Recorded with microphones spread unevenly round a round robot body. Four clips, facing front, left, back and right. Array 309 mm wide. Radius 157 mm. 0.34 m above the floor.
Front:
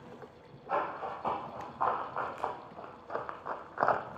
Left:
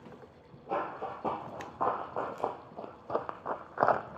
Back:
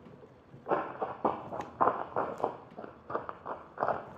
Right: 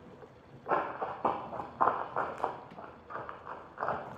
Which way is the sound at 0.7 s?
170° right.